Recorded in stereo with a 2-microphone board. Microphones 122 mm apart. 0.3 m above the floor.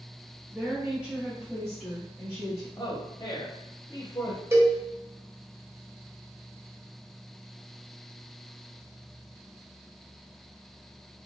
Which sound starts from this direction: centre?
A woman speaking, at 0.5 s.